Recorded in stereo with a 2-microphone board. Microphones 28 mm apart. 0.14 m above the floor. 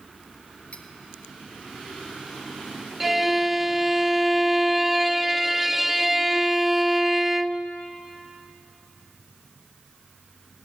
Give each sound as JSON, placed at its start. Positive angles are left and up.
{"t": 0.7, "sound": "cutlery clinking", "side_deg": 55, "distance_m": 2.5}
{"t": 3.0, "sound": "a violin", "side_deg": -10, "distance_m": 0.5}